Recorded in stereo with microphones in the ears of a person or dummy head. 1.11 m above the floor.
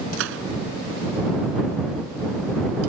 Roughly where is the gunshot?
Right.